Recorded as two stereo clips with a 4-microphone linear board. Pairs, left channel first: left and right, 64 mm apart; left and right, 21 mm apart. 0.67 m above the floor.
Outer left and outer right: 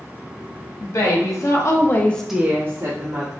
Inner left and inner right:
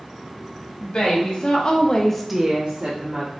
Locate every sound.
0.8 s a woman speaking: 65° left (ahead or behind), 1.5 m; by 3.3 s 60° right (ahead or behind), 1.1 m